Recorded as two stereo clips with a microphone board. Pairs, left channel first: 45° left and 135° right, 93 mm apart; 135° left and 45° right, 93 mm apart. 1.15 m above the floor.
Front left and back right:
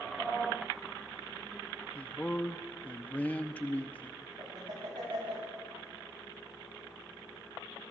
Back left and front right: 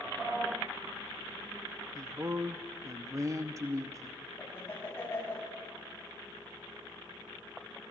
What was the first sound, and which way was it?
A man speaking, 20° right.